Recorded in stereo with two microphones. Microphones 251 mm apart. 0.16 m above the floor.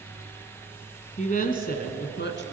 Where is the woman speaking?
30° left (ahead or behind), 1.3 m; by 2.4 s 50° left (ahead or behind), 1.7 m.